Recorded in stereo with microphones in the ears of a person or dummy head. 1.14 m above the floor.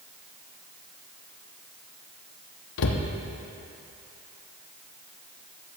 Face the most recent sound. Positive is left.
turn(degrees=70)  # may be behind; listen again after turning